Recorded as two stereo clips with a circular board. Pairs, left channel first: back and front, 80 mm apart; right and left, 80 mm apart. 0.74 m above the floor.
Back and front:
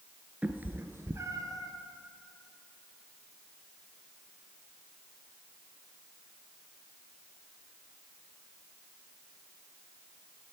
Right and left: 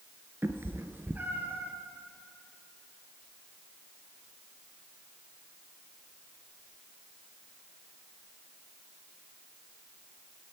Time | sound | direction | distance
0.4 | a cat meowing | 60° left | 0.8 m